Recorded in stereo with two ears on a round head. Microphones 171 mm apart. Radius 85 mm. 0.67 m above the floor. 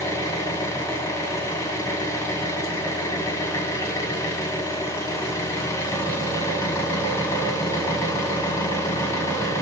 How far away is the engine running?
About 1.6 m.